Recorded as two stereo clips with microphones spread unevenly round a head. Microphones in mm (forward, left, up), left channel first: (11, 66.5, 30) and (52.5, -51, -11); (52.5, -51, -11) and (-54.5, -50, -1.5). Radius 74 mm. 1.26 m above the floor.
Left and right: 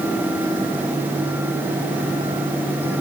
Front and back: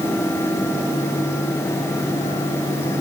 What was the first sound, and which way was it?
Only background noise.